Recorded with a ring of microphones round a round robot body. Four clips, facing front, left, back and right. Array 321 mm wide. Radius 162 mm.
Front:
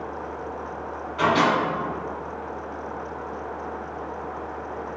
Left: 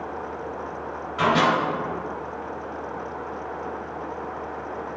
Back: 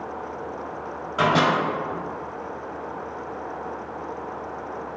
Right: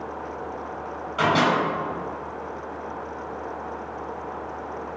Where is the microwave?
160° right, 1.4 m.